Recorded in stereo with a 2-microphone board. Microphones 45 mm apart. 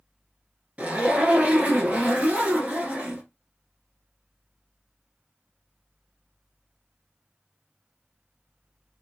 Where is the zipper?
25° right (ahead or behind), 1.0 m.